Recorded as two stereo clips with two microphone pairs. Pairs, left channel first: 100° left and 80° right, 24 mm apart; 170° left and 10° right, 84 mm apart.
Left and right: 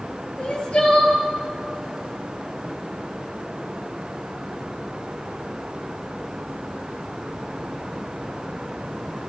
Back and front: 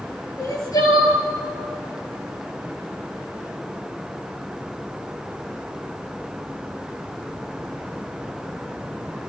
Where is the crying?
125° left, 4.5 m.